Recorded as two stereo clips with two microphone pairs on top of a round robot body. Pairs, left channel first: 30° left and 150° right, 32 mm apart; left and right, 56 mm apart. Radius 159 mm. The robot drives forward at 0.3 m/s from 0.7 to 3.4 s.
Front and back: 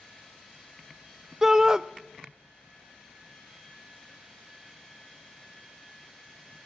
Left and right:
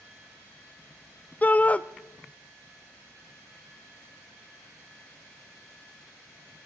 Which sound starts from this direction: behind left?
A shout, at 1.4 s.